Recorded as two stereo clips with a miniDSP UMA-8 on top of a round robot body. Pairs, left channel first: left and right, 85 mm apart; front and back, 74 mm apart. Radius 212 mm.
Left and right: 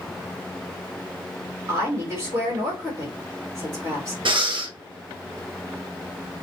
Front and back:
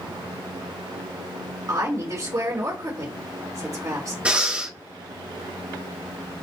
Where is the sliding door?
No sliding door in this recording.